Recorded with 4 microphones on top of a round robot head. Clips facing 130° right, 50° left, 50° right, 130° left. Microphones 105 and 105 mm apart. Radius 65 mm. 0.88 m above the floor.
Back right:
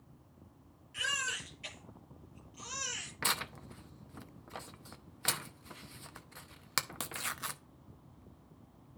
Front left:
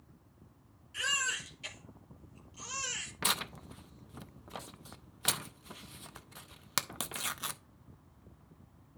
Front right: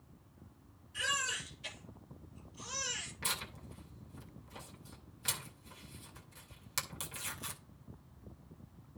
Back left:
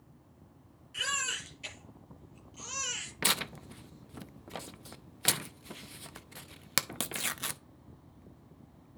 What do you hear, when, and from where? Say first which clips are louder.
0.9 s a baby crying: front left 2 dB, back left 1 dB; 120° left, 7.5 m
3.2 s tearing paper: front left 1 dB, back left 9 dB; 130° left, 0.6 m